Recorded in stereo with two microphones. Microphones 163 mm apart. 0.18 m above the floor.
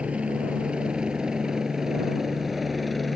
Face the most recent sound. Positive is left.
turn(degrees=0)  # may be behind; listen again after turning